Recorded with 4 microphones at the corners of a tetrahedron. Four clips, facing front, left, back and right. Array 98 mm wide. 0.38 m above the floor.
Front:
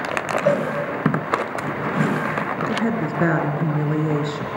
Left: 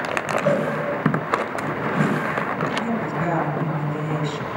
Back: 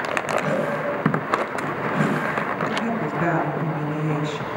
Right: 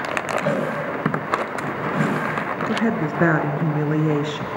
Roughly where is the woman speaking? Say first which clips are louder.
Right 3 dB, front 2 dB; right.